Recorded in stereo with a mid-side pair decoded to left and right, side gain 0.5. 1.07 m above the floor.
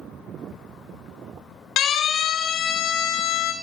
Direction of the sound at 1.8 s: 70° left.